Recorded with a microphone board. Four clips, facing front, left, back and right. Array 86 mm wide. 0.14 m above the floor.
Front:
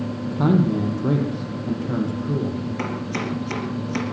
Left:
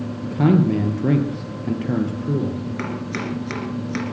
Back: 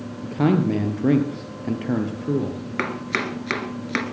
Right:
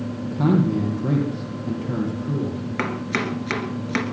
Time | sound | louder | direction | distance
0.2 | a man speaking | left 3 dB, even | 145° left | 3.5 m
2.8 | chopping | right 2 dB, even | 150° right | 2.5 m